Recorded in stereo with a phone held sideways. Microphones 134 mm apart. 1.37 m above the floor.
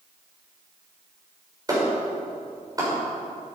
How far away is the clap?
About 5.5 m.